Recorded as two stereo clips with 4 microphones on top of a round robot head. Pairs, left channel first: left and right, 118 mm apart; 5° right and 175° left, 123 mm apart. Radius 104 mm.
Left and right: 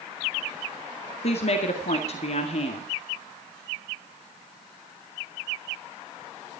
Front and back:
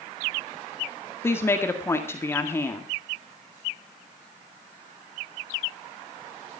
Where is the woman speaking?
65° left, 2 m.